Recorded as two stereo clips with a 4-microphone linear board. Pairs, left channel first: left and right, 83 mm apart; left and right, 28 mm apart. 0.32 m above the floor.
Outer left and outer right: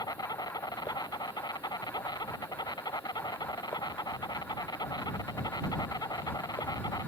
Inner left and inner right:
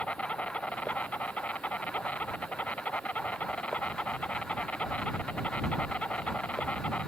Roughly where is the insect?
Left.